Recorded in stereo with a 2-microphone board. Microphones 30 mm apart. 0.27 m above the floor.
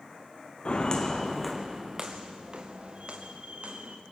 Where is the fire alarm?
I don't hear a fire alarm.